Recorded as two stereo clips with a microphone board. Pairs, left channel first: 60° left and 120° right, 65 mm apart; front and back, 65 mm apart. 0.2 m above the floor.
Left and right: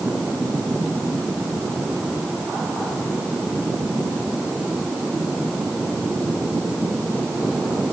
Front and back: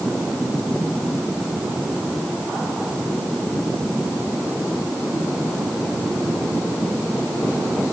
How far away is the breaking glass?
I don't hear breaking glass.